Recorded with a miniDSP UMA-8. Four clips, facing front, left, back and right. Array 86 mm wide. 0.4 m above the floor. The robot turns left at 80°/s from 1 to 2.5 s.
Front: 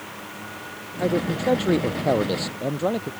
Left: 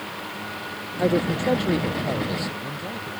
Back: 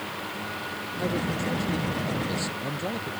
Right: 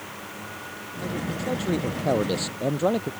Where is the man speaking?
65° left; by 3.1 s 55° right.